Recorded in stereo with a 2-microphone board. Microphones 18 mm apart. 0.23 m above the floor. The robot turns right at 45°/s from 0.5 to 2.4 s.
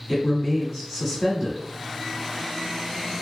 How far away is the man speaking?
About 1.2 m.